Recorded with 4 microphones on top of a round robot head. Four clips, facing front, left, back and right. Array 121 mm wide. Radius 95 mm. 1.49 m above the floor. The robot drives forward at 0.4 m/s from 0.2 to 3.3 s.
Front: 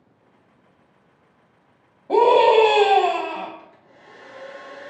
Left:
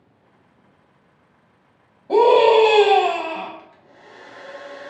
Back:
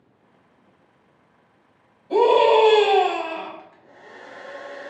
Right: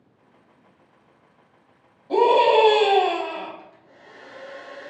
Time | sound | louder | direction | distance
2.1 | a scream | left 4 dB, front 1 dB | 30° left | 0.9 m
3.6 | a hair dryer | left 1 dB, back 2 dB | 155° left | 0.8 m